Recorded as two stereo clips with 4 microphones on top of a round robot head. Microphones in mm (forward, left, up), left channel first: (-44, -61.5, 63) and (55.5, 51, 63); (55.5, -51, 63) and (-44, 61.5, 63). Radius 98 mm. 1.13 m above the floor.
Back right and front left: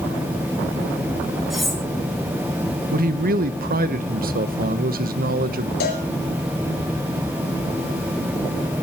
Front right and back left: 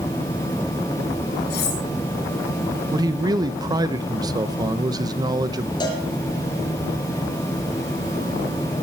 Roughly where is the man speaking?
Left.